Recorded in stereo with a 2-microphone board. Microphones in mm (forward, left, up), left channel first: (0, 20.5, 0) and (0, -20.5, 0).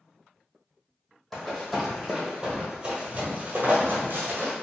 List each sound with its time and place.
1.3 s running footsteps: 5° left (ahead or behind), 1.4 m; by 4.5 s 65° right (ahead or behind), 1.2 m